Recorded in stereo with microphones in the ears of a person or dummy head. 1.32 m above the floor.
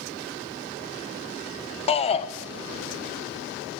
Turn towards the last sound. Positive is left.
turn(degrees=30)  # may be behind; listen again after turning